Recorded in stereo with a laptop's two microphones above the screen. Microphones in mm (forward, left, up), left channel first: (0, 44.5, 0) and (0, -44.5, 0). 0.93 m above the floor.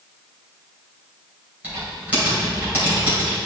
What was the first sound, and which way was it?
Typing on a keyboard, 20° right (ahead or behind).